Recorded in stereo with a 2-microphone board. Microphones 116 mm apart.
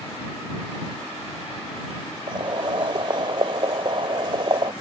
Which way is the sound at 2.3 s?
45° right (ahead or behind).